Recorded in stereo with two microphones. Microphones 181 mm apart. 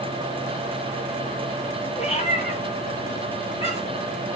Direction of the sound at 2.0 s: 40° left (ahead or behind).